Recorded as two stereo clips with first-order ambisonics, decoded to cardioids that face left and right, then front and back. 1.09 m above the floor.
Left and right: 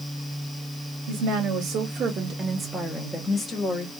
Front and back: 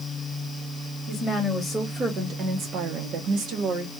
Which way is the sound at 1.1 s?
85° right.